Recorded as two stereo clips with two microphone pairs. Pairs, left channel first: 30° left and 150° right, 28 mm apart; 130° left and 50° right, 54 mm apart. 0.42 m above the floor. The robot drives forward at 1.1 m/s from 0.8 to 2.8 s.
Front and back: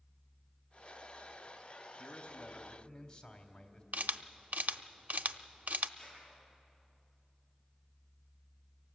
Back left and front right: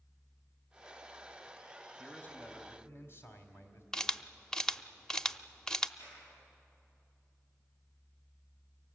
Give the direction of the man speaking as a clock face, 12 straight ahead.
10 o'clock.